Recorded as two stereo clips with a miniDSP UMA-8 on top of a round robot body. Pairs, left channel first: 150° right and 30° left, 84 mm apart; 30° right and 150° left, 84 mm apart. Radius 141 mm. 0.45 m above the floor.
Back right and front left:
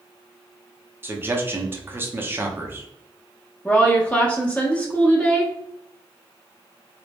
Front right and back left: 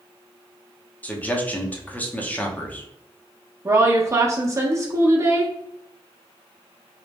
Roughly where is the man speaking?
Ahead.